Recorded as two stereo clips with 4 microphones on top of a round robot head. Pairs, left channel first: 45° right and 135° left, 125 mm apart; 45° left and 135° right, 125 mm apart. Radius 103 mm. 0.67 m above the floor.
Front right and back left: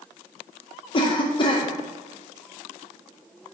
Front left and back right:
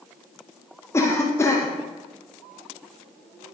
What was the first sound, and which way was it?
A cough, 15° right.